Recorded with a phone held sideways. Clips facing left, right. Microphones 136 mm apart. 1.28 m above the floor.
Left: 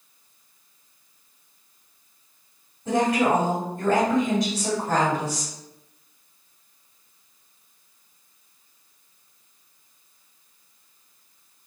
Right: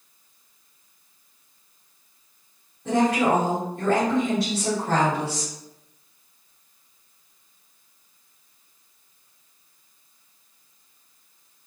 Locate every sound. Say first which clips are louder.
2.9 s a woman speaking: right 1 dB; 75° right (ahead or behind), 1.3 m